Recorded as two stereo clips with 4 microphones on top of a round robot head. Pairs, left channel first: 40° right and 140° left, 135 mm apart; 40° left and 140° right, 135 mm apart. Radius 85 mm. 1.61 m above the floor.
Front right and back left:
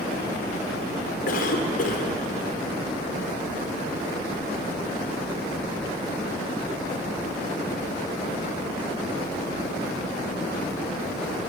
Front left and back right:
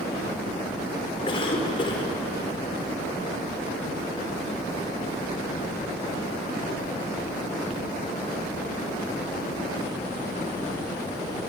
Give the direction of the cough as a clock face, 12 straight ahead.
12 o'clock.